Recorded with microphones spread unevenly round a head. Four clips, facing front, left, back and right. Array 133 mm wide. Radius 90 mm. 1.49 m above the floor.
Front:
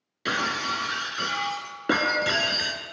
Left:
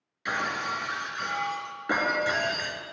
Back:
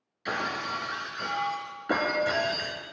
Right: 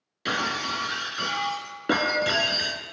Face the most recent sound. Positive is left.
turn(degrees=-35)